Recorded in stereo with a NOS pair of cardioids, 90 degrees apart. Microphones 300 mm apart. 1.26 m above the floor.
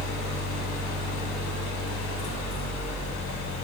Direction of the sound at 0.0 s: 65° left.